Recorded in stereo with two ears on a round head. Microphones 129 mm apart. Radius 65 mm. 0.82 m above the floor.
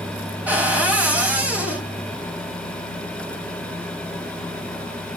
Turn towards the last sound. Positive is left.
turn(degrees=-10)  # may be behind; listen again after turning